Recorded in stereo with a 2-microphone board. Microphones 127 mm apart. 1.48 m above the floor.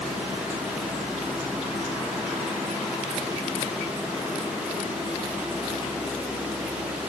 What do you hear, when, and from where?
Only background noise.